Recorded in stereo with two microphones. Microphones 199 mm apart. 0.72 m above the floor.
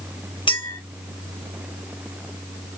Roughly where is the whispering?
I don't hear whispering.